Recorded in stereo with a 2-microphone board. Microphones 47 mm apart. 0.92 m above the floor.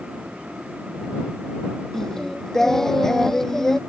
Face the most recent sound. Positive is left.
turn(degrees=10)  # may be behind; listen again after turning